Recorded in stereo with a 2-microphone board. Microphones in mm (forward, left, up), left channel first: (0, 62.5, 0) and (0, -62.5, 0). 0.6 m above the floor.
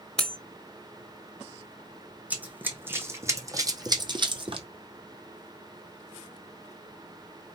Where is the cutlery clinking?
5° left (ahead or behind), 0.9 m.